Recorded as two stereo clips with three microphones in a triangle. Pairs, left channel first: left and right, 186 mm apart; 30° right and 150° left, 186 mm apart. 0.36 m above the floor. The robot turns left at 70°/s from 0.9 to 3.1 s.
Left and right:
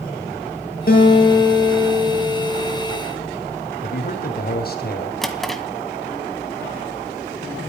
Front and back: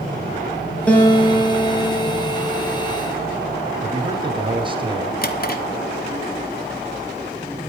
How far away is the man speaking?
About 2 m.